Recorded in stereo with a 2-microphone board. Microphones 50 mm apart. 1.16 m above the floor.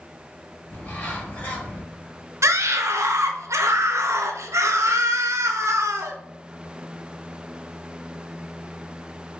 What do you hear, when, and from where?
0.7 s a bird: 30° left (ahead or behind), 1.4 m
2.4 s a scream: 75° right (ahead or behind), 0.6 m